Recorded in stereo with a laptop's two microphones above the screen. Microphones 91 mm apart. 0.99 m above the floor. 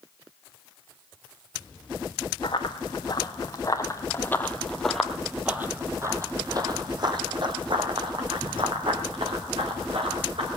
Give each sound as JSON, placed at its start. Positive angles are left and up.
{"t": 2.4, "sound": "running footsteps", "side_deg": 55, "distance_m": 2.0}